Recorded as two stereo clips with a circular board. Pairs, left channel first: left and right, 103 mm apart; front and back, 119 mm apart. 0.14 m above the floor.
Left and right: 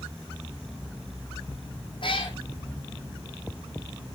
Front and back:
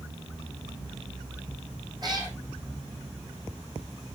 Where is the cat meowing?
125° left, 2.5 m.